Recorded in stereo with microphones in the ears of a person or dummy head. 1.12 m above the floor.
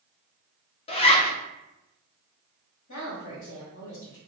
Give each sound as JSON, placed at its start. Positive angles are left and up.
{"t": 0.9, "sound": "a zipper", "side_deg": 25, "distance_m": 0.8}
{"t": 2.9, "sound": "a woman speaking", "side_deg": 70, "distance_m": 1.7}